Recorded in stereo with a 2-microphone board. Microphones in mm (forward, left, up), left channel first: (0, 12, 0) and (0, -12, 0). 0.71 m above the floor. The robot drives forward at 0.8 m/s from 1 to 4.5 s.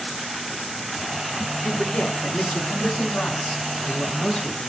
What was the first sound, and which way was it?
A man speaking, 70° left (ahead or behind).